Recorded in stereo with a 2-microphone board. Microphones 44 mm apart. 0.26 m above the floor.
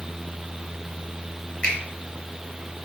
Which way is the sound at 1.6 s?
30° left (ahead or behind).